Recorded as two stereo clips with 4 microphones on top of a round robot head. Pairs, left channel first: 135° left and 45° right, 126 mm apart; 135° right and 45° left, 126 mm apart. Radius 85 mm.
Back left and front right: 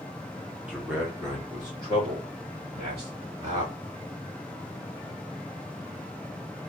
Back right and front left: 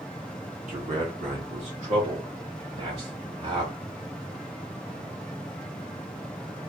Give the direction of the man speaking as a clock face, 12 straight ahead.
11 o'clock.